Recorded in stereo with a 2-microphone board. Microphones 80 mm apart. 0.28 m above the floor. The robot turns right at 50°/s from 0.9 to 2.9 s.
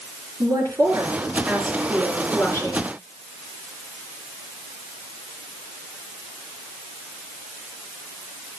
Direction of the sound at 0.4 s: 50° right.